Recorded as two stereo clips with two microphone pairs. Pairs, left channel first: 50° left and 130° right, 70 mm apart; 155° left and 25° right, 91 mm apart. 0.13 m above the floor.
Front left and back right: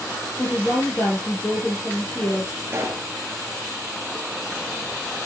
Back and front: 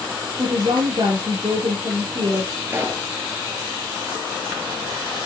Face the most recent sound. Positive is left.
turn(degrees=-80)